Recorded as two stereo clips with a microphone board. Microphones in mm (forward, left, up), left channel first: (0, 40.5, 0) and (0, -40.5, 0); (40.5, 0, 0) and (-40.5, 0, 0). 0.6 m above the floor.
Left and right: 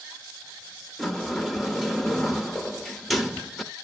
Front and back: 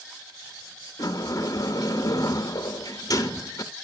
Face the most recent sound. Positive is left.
turn(degrees=5)